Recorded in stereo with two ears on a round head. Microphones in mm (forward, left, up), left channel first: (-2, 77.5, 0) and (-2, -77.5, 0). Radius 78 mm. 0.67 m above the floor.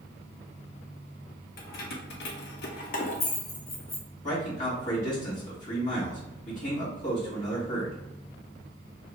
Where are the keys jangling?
55° left (ahead or behind), 0.8 m; by 4.0 s 15° left (ahead or behind), 1.0 m.